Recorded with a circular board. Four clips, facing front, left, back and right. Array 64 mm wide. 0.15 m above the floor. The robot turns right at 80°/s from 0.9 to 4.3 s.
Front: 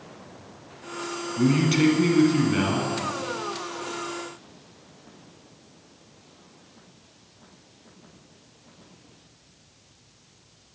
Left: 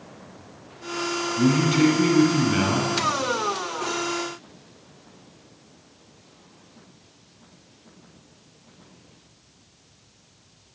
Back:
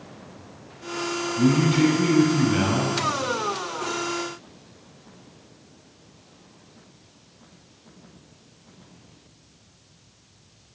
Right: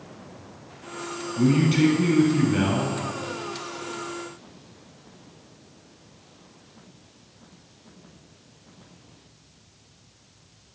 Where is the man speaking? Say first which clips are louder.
Even, back 1 dB; 20° right, 1.0 m; by 3.0 s 110° left, 1.0 m.